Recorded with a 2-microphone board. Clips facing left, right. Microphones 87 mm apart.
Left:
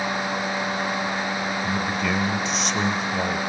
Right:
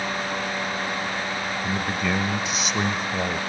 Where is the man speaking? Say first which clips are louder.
Right 1 dB; 5° right (ahead or behind), 0.9 m.